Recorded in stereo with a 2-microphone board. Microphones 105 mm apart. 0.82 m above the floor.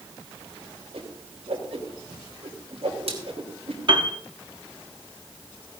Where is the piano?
50° right (ahead or behind), 1.4 m.